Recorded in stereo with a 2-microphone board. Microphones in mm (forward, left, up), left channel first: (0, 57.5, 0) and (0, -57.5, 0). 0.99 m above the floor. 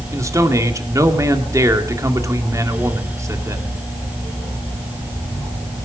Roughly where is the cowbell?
No cowbell in this recording.